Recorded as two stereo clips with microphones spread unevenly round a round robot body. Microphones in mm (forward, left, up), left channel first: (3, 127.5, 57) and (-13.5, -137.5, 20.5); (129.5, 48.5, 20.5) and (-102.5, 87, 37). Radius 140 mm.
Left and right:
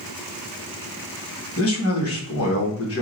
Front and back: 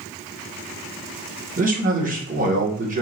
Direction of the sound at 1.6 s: 120° left.